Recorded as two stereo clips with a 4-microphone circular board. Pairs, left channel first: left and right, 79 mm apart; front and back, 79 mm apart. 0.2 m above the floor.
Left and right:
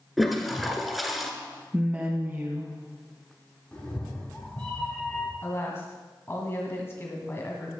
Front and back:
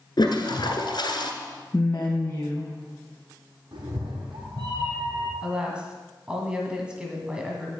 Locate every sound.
0.2 s a toilet flushing: straight ahead, 1.6 m
1.7 s a woman speaking: 50° right, 1.3 m
3.7 s a cat meowing: 165° left, 3.5 m
5.4 s a woman speaking: 115° left, 1.6 m